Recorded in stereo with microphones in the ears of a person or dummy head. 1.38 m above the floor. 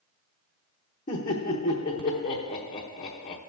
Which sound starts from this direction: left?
Laughter, at 1.1 s.